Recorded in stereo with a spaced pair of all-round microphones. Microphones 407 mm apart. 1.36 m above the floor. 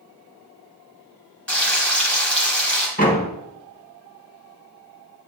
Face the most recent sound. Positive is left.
turn(degrees=20)  # may be behind; listen again after turning